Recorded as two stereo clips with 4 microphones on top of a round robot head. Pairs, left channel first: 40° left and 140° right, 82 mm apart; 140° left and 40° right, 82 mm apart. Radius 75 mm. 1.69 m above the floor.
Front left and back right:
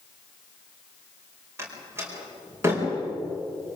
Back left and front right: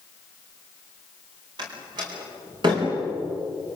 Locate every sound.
1.6 s a door slam: 80° right, 4.5 m